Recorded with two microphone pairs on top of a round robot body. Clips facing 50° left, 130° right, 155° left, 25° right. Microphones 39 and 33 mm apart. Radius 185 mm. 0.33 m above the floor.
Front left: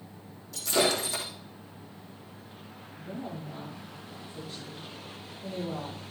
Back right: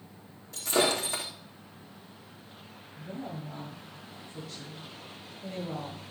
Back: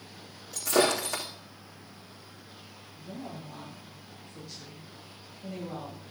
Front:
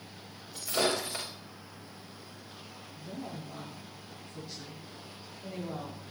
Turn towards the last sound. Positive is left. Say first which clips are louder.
# front left 1 dB, even
turn(degrees=-95)